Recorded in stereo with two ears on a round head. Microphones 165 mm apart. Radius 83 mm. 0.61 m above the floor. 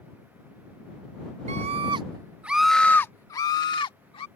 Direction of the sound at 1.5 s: 40° right (ahead or behind).